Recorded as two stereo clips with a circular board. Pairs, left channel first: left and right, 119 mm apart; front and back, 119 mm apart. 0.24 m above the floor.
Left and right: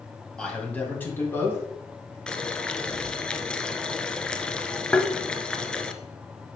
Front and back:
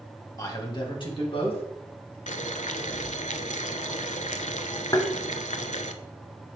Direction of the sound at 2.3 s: 5° left.